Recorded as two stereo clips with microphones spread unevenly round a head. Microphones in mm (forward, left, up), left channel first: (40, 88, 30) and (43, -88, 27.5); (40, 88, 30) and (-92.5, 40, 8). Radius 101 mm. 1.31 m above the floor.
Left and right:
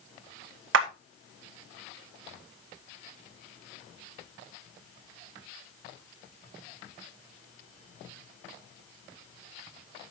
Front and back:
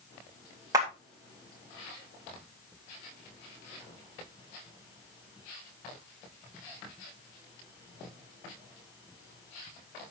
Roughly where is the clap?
Right.